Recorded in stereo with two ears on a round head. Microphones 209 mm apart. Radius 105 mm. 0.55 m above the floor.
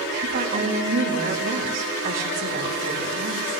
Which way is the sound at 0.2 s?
45° right (ahead or behind).